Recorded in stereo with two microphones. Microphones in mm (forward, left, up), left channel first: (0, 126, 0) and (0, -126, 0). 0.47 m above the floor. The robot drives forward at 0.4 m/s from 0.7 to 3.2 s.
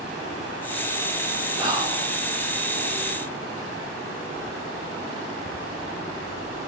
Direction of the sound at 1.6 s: 15° right (ahead or behind).